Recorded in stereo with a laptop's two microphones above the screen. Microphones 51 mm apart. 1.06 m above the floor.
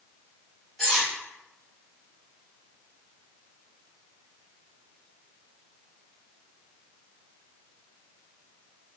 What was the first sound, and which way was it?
Cutlery clinking, centre (ahead or behind).